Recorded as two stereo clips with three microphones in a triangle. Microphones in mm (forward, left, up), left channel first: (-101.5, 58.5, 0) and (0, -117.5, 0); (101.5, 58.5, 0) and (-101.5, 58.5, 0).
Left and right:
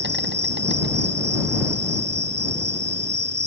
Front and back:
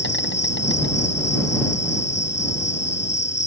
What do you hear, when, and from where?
0.0 s an insect: 30° right